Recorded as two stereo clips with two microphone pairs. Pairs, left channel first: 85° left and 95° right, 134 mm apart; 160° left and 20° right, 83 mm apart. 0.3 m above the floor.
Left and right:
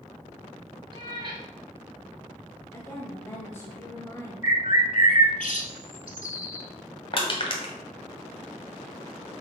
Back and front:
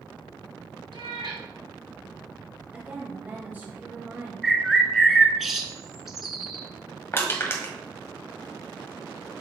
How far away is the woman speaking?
About 1.2 m.